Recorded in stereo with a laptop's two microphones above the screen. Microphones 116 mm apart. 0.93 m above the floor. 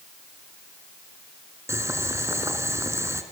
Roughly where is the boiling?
Right.